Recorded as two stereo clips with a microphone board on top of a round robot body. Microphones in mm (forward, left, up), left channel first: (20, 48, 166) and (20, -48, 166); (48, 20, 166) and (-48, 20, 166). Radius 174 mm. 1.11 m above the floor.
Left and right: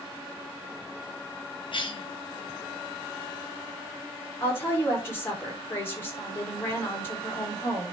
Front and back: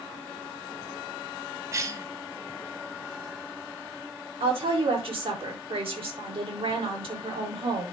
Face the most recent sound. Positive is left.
turn(degrees=155)